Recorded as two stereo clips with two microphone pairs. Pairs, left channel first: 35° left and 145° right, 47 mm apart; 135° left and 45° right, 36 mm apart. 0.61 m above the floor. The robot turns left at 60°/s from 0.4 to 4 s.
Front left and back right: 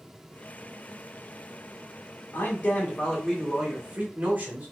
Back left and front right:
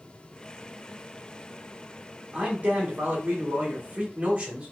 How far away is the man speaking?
About 1.7 m.